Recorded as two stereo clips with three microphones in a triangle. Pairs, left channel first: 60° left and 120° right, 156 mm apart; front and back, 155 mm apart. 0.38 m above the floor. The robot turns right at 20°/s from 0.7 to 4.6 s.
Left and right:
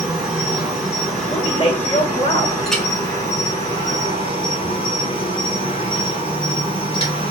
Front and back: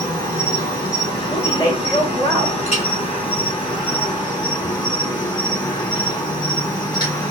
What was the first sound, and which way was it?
An insect, 40° right.